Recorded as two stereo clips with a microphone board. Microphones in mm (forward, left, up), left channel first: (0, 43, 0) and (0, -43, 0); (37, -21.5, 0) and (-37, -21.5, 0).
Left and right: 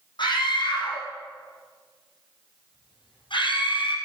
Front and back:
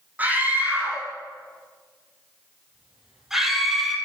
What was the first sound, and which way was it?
A scream, 115° left.